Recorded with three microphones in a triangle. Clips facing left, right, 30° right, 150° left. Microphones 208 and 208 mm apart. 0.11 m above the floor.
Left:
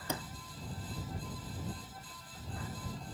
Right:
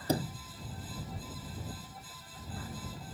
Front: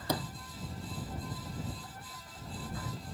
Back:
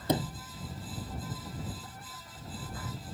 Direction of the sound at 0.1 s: 145° right.